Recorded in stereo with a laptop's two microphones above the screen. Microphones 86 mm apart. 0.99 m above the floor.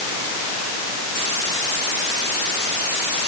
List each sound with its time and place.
Only background noise.